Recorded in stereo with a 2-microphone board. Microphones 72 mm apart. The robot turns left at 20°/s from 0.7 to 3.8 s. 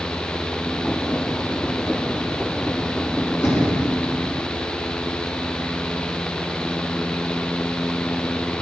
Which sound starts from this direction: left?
Knocking, at 3.4 s.